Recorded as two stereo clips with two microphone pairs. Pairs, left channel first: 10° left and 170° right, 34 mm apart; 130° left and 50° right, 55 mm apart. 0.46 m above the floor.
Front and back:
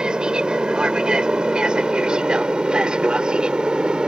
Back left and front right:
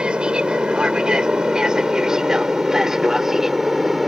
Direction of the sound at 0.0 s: 115° right.